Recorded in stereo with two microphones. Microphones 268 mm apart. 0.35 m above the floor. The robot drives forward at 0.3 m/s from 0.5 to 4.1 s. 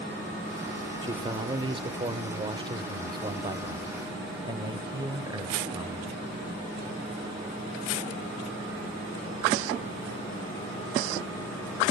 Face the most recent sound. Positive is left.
turn(degrees=-15)  # may be behind; listen again after turning